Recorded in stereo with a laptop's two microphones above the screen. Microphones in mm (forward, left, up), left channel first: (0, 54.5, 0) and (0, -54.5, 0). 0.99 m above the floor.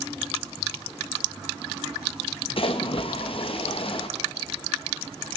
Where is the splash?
55° left (ahead or behind), 0.7 m.